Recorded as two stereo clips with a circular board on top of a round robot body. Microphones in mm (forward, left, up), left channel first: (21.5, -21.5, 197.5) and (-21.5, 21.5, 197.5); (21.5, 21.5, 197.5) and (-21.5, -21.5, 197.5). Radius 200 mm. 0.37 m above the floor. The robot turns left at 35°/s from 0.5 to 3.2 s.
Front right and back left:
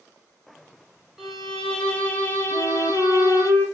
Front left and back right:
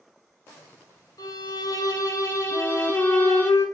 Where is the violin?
50° left, 1.0 m; by 3.5 s 20° right, 1.0 m.